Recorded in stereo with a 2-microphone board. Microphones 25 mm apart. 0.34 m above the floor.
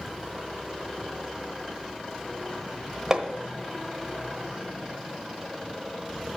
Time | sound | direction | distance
3.1 | hammering | 30° right (ahead or behind) | 1.0 m